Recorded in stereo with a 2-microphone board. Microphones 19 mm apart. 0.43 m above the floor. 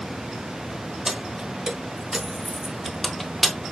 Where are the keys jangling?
15° right (ahead or behind), 1.3 m; by 3.6 s 25° left (ahead or behind), 0.7 m.